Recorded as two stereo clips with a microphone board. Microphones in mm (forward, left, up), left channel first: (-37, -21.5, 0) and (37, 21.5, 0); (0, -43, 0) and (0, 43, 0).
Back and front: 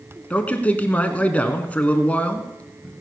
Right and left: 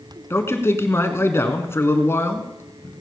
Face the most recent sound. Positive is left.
turn(degrees=-95)